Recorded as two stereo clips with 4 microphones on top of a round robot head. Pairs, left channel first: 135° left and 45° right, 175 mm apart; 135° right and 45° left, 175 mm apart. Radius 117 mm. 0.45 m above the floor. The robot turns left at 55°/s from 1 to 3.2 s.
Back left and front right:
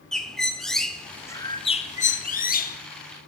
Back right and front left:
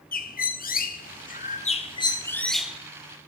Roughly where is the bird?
Behind right.